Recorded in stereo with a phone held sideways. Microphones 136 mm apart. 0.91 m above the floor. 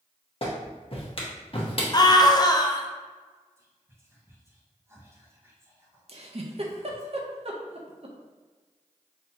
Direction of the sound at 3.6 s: 20° right (ahead or behind).